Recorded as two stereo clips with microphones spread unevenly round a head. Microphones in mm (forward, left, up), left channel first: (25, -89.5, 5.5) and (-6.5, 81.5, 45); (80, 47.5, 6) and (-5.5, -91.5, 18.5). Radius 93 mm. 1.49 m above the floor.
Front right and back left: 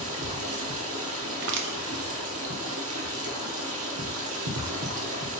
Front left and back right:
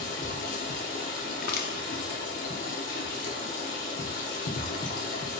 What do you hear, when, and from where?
0.0 s running water: 105° left, 0.9 m
1.3 s crushing: 85° left, 0.6 m